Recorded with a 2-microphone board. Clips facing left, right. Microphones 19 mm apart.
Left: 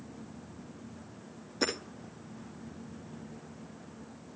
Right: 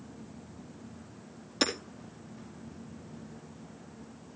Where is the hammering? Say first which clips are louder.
Right 2 dB; 70° right (ahead or behind), 4.5 m.